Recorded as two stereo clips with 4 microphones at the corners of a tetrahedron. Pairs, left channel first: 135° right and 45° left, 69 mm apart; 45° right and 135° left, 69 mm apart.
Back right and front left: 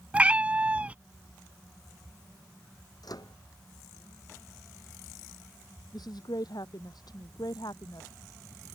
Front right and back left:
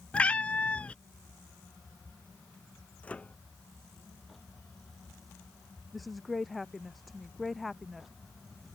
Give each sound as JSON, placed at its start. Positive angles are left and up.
{"t": 0.1, "sound": "a cat meowing", "azimuth_deg": 0}
{"t": 3.0, "sound": "a microwave", "azimuth_deg": -115}
{"t": 5.9, "sound": "a woman speaking", "azimuth_deg": -135}